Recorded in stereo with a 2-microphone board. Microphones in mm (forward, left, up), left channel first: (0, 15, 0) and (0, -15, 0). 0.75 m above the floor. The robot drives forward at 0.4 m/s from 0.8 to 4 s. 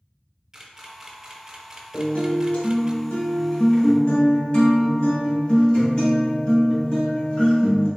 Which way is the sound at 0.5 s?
15° right (ahead or behind).